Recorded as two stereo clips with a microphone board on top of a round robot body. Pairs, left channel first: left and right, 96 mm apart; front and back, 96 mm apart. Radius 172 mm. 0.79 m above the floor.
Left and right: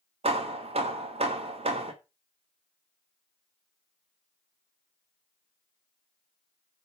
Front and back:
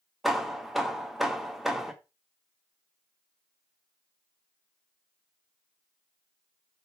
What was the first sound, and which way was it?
Hammering, 90° right.